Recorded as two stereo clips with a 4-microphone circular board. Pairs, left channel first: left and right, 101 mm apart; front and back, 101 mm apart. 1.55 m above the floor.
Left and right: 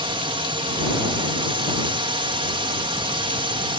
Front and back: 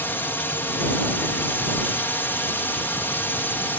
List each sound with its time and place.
0.0 s a drone: 65° right